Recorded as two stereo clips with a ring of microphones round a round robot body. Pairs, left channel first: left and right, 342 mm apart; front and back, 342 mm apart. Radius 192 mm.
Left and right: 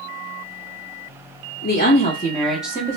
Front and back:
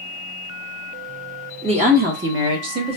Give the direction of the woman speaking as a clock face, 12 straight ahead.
8 o'clock.